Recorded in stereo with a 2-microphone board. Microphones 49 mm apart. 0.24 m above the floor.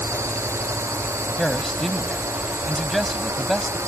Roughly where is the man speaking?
Centre.